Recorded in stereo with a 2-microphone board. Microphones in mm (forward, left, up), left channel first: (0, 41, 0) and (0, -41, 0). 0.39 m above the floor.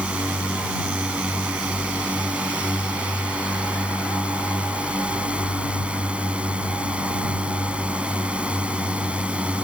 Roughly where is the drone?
Centre.